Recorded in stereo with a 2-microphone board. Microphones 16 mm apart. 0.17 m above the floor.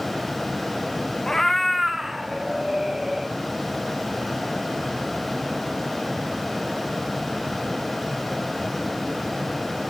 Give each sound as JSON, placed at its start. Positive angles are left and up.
{"t": 1.3, "sound": "a cat meowing", "side_deg": 35, "distance_m": 0.5}